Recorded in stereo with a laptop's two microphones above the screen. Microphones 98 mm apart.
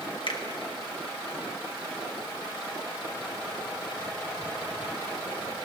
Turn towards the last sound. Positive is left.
turn(degrees=60)  # may be behind; listen again after turning